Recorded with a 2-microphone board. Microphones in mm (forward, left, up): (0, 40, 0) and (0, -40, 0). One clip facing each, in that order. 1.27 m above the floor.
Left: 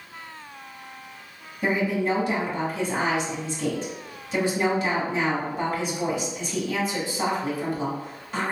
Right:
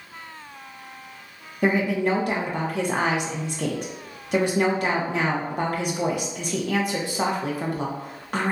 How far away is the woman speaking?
About 0.9 m.